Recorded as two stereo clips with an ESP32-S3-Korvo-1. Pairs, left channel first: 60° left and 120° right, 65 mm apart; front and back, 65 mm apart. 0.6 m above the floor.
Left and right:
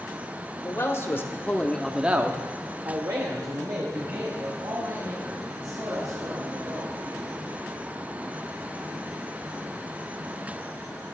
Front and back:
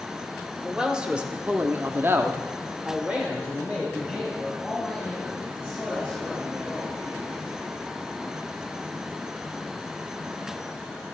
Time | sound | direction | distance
0.6 | a man speaking | 100° left | 2.5 m